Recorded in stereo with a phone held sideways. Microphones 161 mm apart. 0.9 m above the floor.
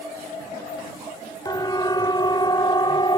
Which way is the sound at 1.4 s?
25° left (ahead or behind).